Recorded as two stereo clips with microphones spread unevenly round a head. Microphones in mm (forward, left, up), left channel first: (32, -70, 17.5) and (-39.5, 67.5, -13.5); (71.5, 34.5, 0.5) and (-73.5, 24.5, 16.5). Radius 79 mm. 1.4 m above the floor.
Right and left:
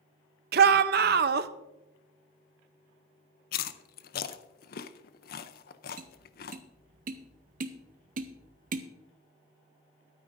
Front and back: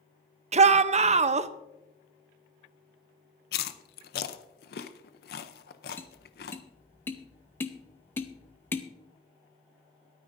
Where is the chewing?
30° right, 0.6 m.